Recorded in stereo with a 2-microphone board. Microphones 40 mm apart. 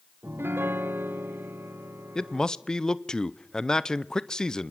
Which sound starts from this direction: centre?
A man speaking, at 2.1 s.